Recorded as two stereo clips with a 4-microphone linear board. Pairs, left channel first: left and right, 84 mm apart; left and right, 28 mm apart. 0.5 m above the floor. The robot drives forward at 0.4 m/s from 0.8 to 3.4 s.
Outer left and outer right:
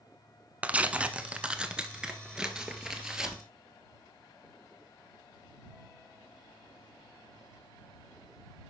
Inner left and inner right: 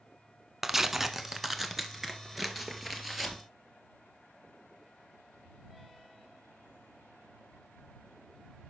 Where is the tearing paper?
15° right (ahead or behind), 0.8 m; by 3.4 s 5° right (ahead or behind), 1.8 m.